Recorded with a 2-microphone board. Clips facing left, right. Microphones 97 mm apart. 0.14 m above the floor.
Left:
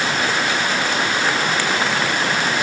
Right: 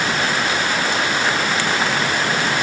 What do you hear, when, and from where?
Only background noise.